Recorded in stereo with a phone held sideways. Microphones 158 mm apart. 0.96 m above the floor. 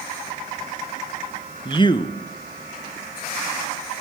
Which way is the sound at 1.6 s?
30° left (ahead or behind).